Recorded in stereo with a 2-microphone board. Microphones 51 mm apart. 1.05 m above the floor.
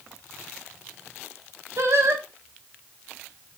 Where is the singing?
70° right (ahead or behind), 1.4 m.